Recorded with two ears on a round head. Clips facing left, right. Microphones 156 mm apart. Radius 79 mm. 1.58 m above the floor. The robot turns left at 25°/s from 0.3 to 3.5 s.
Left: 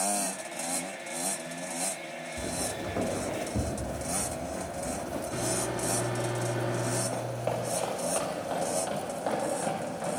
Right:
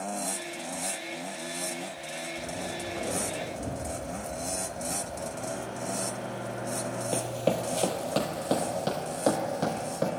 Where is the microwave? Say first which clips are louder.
Left 4 dB; 85° left, 3.5 m.